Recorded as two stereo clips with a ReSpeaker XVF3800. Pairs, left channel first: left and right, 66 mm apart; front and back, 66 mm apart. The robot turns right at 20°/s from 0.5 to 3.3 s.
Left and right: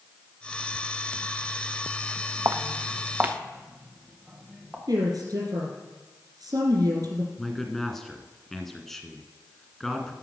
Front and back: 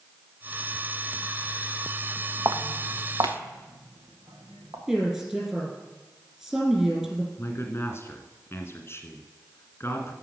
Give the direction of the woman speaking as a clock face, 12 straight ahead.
3 o'clock.